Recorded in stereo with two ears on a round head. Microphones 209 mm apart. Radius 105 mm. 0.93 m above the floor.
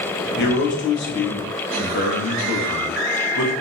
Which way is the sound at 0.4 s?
55° left (ahead or behind).